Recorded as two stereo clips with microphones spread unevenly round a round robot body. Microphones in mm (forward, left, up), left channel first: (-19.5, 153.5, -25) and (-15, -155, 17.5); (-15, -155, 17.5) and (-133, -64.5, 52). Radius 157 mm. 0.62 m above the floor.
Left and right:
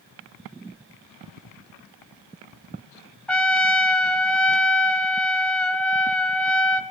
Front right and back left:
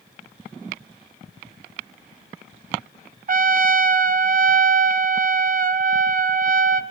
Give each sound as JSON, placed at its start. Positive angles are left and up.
{"t": 3.3, "sound": "a trumpet", "azimuth_deg": 175, "distance_m": 1.0}